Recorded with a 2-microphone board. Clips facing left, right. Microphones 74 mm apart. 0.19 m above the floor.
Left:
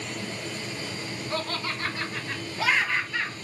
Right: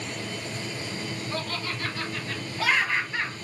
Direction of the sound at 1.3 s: 45° left (ahead or behind).